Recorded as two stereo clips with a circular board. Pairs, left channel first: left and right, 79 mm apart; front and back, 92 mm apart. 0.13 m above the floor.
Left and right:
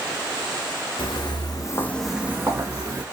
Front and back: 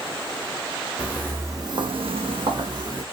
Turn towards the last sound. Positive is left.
turn(degrees=-130)